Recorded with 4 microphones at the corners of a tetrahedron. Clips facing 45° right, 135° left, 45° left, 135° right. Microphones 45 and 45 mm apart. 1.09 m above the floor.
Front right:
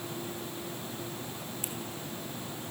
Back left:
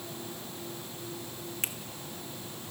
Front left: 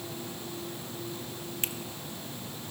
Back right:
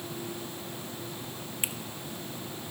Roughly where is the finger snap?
Behind left.